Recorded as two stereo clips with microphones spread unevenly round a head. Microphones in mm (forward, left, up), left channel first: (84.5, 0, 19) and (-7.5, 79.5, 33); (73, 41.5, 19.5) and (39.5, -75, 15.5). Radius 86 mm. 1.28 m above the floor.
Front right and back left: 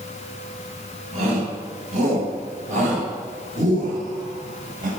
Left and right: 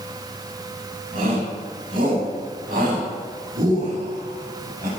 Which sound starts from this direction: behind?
A shout, at 1.1 s.